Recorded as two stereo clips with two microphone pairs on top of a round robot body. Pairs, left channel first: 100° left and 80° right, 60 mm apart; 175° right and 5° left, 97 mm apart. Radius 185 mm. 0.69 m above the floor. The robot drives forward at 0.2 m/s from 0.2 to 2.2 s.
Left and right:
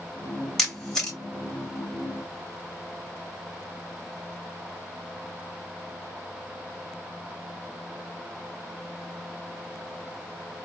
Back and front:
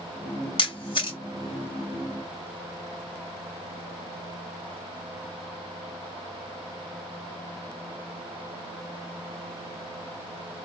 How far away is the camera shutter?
About 1.9 m.